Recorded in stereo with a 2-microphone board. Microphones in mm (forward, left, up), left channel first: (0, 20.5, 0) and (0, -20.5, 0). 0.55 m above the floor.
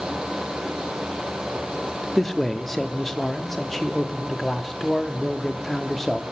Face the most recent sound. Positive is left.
turn(degrees=5)  # may be behind; listen again after turning